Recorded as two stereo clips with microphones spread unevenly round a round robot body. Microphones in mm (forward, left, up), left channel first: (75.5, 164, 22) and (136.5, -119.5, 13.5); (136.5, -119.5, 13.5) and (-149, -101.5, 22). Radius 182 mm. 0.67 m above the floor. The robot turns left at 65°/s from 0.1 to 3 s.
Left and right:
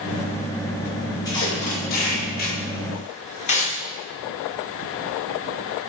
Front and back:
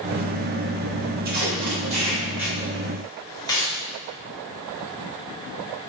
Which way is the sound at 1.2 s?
170° left.